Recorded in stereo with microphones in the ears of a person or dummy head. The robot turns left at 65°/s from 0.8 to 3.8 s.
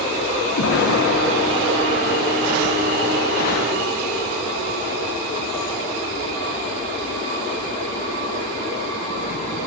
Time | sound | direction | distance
0.6 | an explosion | 85° left | 0.9 m